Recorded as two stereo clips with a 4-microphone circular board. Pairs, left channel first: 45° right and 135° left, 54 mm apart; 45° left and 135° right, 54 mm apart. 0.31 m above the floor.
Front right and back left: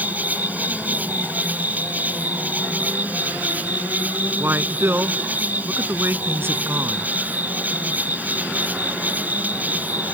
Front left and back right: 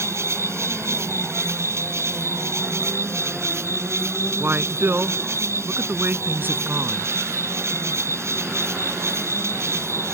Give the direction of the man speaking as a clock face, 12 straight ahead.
6 o'clock.